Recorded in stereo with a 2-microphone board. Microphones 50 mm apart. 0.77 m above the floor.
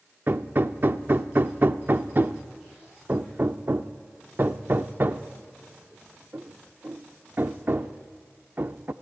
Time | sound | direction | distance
0.3 | hammering | 45° right (ahead or behind) | 0.6 m